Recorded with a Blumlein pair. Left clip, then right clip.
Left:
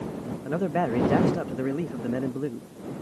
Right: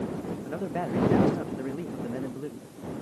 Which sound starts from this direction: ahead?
A man speaking, at 0.5 s.